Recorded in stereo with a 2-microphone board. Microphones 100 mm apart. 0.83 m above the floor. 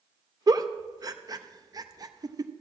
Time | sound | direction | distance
0.5 | a giggle | 40° right (ahead or behind) | 0.6 m